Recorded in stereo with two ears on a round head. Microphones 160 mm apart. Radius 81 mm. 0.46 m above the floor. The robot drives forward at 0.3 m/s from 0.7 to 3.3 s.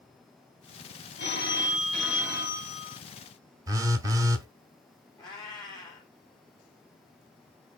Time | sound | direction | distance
1.2 | a phone ringing | 65° left (ahead or behind) | 2.5 m
3.7 | a phone buzzing | 20° right (ahead or behind) | 0.6 m
5.2 | a cat meowing | 25° left (ahead or behind) | 2.5 m